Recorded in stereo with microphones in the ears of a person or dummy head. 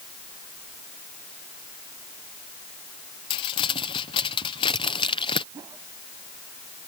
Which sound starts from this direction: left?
Crumpling, at 3.3 s.